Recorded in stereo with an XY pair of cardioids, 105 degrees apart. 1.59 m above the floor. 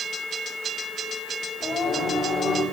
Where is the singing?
65° left, 7.5 m.